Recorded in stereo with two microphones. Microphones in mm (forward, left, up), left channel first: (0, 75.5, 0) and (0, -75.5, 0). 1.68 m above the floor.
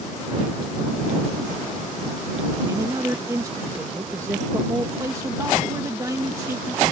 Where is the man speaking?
25° right (ahead or behind).